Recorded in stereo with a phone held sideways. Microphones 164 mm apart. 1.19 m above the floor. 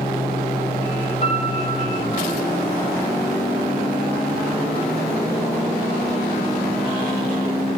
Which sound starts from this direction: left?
A piano, at 1.2 s.